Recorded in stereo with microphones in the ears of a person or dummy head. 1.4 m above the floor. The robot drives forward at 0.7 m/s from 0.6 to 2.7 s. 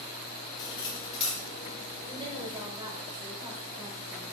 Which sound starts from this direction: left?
Cutlery clinking, at 0.6 s.